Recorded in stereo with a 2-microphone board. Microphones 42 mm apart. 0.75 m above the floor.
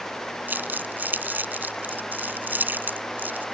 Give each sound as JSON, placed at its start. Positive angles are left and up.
{"t": 0.5, "sound": "crumpling", "side_deg": -50}